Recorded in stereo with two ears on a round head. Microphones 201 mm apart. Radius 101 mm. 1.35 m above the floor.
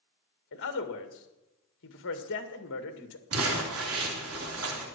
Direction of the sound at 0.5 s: 60° left (ahead or behind).